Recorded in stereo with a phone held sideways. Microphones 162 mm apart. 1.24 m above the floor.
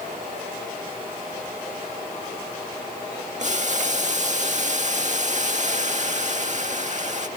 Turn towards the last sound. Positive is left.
turn(degrees=-50)  # may be behind; listen again after turning